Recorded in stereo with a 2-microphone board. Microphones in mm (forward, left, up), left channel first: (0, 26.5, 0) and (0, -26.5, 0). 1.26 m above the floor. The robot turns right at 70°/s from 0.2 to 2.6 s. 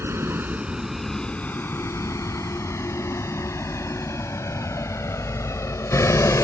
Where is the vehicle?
55° right (ahead or behind); by 6.4 s 80° left.